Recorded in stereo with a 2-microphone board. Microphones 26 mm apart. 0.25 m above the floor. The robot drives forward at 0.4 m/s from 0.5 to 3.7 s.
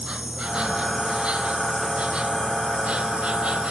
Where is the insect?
40° right (ahead or behind); by 3.7 s 50° right (ahead or behind).